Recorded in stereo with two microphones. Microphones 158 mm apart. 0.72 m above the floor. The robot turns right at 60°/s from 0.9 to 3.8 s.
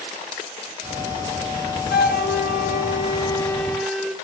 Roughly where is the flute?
Left.